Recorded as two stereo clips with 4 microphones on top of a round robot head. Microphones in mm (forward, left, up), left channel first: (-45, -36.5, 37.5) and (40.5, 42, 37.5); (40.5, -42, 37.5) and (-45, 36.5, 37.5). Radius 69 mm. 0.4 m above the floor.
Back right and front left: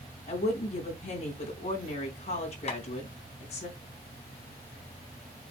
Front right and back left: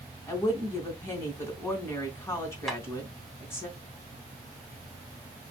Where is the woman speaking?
110° right, 3 m.